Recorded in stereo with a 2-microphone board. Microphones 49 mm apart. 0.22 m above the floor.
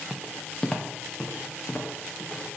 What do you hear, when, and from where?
0.1 s footsteps: 5° right (ahead or behind), 0.8 m; by 2.4 s 25° left (ahead or behind), 3.5 m